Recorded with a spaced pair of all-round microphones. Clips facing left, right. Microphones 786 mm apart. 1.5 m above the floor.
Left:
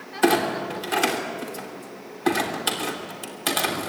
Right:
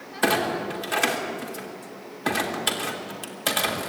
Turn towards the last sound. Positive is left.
turn(degrees=-10)  # may be behind; listen again after turning